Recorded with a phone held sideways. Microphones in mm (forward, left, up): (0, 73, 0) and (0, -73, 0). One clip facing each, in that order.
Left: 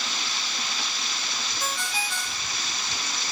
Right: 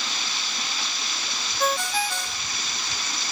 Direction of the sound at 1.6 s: 65° right (ahead or behind).